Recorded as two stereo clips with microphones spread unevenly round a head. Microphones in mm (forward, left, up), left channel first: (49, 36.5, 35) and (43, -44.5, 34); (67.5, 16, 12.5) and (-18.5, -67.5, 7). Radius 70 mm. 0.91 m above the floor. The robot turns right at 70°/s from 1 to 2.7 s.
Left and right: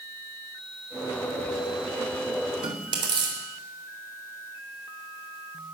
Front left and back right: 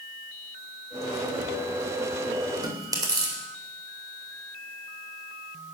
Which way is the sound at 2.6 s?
80° right.